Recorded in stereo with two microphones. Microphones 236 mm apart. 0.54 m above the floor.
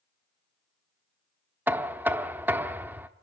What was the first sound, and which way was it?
Knocking, 10° right (ahead or behind).